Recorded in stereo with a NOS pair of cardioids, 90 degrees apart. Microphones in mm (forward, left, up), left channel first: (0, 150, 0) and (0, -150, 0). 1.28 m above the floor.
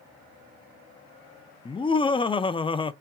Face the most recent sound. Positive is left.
turn(degrees=15)